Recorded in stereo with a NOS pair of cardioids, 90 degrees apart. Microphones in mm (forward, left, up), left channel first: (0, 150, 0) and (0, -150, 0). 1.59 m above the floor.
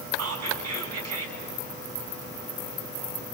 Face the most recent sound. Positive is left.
turn(degrees=-60)